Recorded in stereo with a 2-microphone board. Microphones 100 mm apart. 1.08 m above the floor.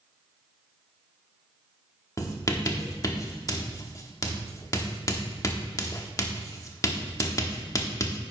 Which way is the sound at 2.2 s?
35° left (ahead or behind).